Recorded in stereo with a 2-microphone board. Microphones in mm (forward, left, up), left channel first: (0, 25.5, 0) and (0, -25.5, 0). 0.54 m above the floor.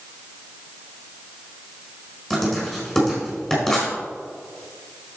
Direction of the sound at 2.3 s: 10° left (ahead or behind).